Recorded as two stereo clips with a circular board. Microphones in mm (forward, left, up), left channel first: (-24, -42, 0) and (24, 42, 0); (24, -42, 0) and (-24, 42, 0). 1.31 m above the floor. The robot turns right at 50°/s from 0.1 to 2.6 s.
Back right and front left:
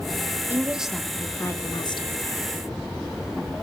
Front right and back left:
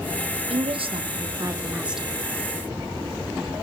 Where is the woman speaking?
130° left, 1.2 m; by 2.2 s 145° right, 1.2 m.